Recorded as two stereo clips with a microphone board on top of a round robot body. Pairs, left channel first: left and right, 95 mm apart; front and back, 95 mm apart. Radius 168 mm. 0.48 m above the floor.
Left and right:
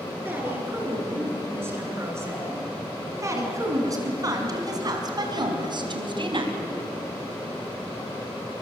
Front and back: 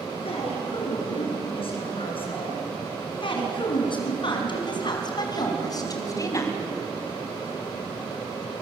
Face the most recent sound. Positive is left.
turn(degrees=-60)